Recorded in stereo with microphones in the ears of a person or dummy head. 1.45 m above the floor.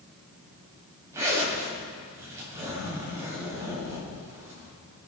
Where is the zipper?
20° right (ahead or behind), 6.5 m.